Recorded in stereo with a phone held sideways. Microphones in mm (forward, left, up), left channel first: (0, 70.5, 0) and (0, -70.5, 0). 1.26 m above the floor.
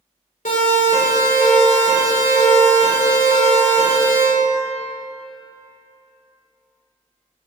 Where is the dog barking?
No dog barking in this recording.